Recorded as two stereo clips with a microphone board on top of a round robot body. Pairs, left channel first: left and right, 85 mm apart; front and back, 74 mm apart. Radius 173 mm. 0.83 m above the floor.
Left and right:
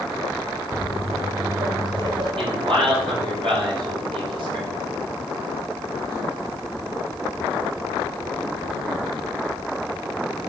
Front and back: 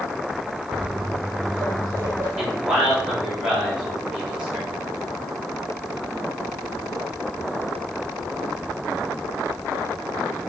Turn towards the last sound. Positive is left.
turn(degrees=-100)